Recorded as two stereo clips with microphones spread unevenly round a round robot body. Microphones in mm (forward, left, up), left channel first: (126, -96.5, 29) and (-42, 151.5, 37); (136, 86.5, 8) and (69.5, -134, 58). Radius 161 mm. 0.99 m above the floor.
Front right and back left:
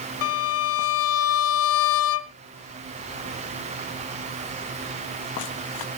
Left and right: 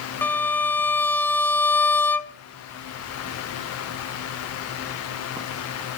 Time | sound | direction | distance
0.2 | a violin | 15° right | 1.3 m